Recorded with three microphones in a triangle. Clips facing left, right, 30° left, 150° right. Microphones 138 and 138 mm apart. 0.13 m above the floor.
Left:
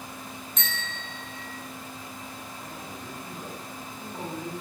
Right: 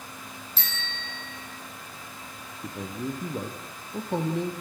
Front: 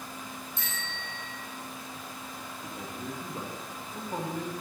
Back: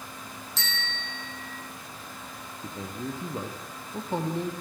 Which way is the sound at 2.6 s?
85° right.